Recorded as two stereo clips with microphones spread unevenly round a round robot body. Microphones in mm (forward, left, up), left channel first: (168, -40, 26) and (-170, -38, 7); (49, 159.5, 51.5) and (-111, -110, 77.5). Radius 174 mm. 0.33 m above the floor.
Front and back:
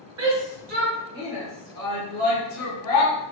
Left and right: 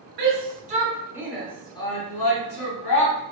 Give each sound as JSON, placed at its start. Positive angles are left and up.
{"t": 0.2, "sound": "a shout", "azimuth_deg": -170, "distance_m": 1.1}